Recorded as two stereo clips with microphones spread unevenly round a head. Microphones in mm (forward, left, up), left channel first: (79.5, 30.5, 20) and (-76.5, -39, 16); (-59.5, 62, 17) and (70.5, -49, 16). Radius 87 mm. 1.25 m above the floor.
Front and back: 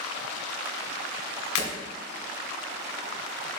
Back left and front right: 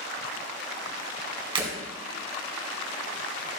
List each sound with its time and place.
1.6 s breaking glass: 20° left, 2.5 m